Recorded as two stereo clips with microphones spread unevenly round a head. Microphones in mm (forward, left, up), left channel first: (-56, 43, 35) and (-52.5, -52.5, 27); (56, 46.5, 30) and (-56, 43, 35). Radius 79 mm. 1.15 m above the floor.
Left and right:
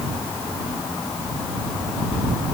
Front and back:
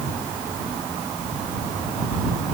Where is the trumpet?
No trumpet in this recording.